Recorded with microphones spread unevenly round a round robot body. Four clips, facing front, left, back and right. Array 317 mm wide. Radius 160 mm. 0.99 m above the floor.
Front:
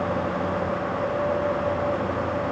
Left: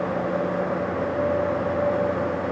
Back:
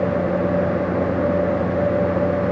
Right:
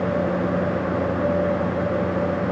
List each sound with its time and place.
Only background noise.